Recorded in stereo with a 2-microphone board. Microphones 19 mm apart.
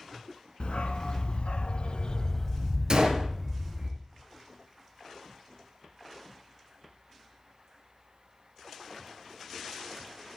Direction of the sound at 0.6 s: 75° left (ahead or behind).